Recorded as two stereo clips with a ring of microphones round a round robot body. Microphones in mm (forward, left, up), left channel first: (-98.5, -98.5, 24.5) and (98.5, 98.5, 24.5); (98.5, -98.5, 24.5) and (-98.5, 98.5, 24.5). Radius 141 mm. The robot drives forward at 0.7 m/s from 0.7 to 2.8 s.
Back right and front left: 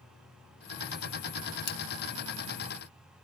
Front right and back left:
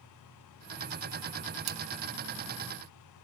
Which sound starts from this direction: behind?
A splash, at 1.7 s.